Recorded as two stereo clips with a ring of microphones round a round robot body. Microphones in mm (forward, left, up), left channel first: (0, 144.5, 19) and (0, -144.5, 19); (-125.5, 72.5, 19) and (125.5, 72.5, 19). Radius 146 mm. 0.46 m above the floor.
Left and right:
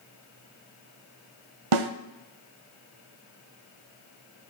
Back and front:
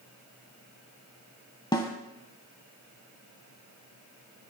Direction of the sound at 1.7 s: 105° right.